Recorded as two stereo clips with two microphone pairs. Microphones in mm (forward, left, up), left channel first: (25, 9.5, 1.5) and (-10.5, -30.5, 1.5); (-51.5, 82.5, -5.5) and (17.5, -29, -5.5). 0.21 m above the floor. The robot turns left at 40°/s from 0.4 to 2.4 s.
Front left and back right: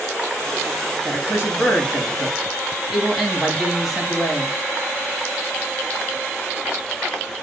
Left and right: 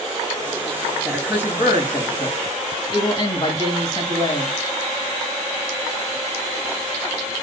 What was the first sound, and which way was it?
A man speaking, 160° right.